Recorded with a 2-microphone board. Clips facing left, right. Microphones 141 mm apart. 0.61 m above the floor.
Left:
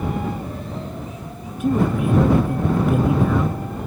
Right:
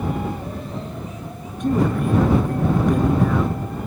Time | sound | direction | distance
1.6 | a man speaking | 5° left (ahead or behind) | ?